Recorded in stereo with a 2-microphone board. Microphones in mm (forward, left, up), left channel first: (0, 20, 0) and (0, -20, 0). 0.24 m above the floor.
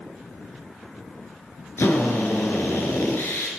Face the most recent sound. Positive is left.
turn(degrees=70)  # may be behind; listen again after turning